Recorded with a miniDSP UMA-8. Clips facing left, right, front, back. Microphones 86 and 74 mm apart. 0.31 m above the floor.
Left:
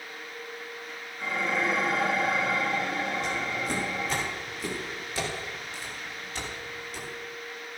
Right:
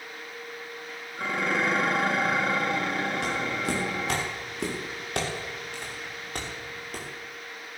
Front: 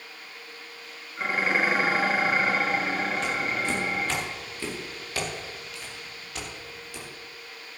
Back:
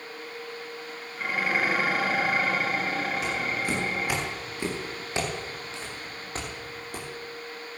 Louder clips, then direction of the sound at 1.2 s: Right 2 dB, front 2 dB; 65° right.